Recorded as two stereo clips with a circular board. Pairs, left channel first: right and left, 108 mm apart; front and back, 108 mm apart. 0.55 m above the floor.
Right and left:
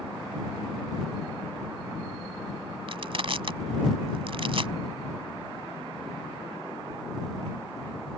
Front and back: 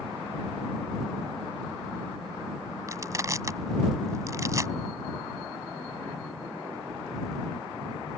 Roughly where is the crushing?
Behind left.